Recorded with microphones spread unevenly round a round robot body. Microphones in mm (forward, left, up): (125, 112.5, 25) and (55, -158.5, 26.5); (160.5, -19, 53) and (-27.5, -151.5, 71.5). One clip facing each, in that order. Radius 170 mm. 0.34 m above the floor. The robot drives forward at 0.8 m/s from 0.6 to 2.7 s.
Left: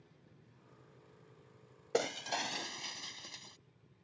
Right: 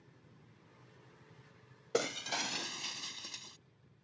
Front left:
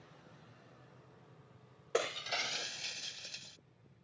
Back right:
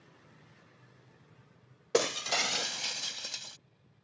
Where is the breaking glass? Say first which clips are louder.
Even, back right 7 dB; 175° left.